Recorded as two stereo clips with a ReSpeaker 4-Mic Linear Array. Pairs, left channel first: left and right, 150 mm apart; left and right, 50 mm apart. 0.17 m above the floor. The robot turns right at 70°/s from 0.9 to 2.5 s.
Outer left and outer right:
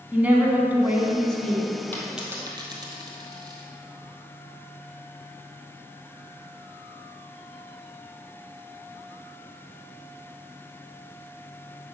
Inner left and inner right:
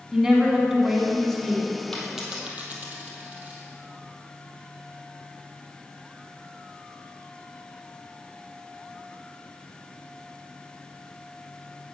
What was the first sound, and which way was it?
A woman speaking, 10° right (ahead or behind).